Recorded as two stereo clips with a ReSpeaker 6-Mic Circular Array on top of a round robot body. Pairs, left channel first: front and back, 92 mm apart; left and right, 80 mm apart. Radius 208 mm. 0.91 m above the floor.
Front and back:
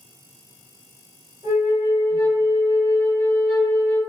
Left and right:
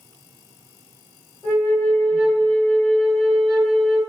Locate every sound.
1.4 s a flute: 170° left, 1.6 m